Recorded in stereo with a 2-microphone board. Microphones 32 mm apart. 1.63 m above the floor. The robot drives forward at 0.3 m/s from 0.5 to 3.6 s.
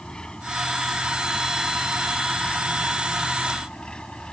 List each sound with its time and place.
0.0 s an engine running: 25° left (ahead or behind)